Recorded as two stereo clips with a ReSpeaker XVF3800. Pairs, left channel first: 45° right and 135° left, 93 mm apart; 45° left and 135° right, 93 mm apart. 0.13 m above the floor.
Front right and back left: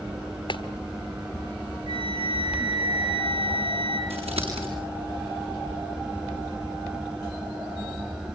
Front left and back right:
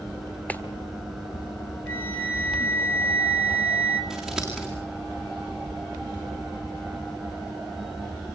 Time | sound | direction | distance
0.5 | a clap | 30° right | 1.6 m
1.9 | a flute | 110° left | 3.5 m
4.1 | scissors | 140° left | 8 m